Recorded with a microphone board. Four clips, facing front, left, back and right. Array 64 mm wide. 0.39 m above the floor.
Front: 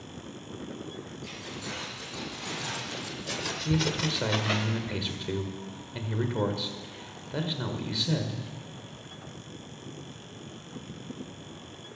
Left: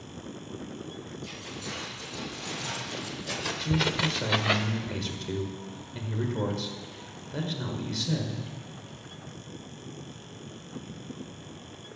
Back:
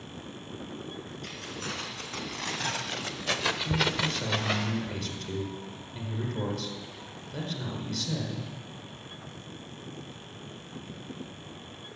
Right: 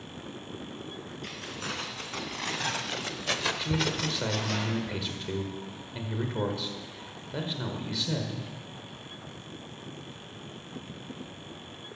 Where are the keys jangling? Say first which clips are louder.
Right 4 dB, back 2 dB; 120° right, 3.5 m; by 4.7 s 90° left, 1.2 m.